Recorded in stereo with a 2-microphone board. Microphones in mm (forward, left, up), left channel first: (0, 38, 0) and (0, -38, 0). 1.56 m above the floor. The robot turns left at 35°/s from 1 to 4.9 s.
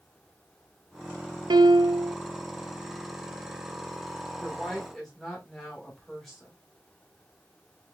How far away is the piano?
About 0.9 m.